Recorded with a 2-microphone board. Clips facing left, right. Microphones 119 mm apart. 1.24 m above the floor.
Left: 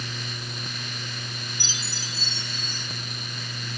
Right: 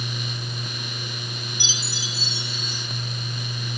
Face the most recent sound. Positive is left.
turn(degrees=50)  # may be behind; listen again after turning